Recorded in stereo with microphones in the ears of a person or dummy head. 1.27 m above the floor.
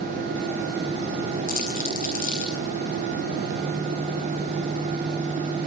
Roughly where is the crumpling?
Left.